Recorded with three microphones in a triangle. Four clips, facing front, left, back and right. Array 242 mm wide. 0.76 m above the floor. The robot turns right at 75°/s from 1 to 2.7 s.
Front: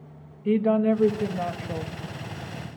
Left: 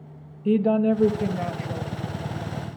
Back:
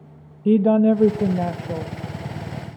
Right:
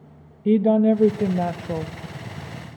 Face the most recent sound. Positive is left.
turn(degrees=-40)